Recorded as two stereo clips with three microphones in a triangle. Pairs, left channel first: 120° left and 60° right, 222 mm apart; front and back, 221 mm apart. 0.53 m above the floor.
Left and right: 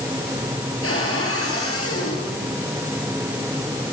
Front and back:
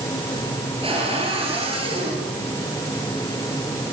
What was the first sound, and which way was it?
A cupboard door, 115° left.